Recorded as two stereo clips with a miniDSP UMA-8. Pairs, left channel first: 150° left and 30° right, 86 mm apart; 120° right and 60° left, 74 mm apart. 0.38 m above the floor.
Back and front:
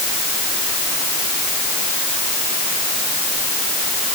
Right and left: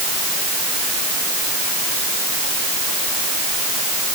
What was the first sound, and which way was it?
Only background noise.